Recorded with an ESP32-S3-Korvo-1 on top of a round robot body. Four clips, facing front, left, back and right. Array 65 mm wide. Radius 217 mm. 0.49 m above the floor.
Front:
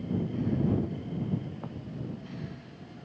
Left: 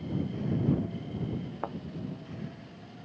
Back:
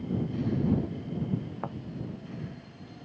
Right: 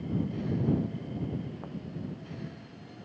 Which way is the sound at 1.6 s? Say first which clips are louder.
Left 6 dB, back 5 dB; 125° left.